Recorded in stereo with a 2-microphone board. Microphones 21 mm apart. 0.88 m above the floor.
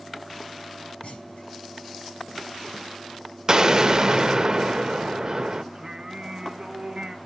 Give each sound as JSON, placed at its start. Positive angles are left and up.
{"t": 1.0, "sound": "a clunk", "side_deg": 85, "distance_m": 6.5}
{"t": 3.5, "sound": "an explosion", "side_deg": -35, "distance_m": 0.7}
{"t": 5.7, "sound": "singing", "side_deg": -45, "distance_m": 1.2}